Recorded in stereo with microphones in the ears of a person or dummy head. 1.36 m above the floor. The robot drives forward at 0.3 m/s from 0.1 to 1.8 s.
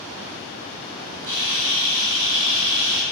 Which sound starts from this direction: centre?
A camera shutter, at 1.3 s.